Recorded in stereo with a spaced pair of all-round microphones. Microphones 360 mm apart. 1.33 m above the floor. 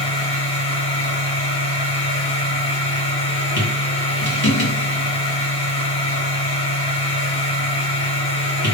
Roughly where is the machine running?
Left.